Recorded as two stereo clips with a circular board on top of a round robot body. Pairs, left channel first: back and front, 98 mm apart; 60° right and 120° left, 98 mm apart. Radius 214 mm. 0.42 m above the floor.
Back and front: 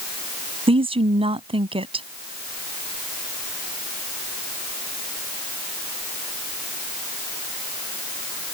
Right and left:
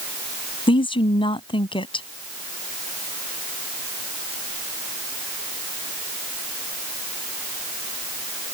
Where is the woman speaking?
25° right.